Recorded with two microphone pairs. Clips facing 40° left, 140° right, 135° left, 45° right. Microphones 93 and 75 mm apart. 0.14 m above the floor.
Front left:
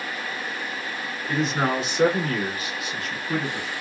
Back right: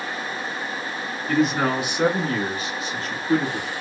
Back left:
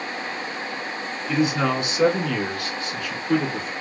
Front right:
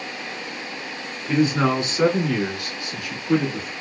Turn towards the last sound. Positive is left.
turn(degrees=-130)